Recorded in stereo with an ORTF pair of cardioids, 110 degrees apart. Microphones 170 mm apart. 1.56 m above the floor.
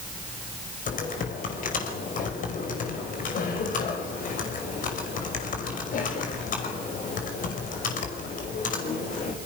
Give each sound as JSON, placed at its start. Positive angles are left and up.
{"t": 0.9, "sound": "typing on a keyboard", "azimuth_deg": 50, "distance_m": 5.5}